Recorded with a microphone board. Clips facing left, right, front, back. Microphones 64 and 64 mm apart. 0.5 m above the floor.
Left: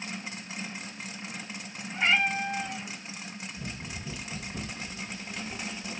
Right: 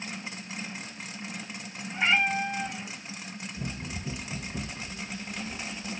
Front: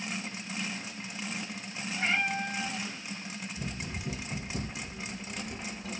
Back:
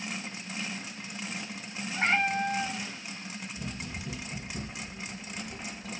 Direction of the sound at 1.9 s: 160° right.